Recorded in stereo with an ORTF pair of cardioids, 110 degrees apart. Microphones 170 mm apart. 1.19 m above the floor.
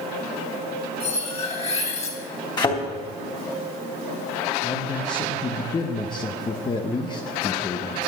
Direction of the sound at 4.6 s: 25° left.